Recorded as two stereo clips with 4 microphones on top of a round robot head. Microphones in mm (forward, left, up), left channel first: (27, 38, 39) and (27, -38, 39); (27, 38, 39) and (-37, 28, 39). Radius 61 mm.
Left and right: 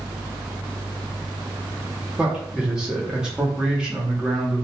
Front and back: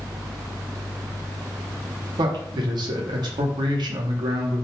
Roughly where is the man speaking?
Behind.